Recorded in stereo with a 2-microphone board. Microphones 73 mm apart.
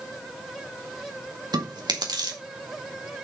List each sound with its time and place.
1.5 s chewing: 75° right (ahead or behind), 2 m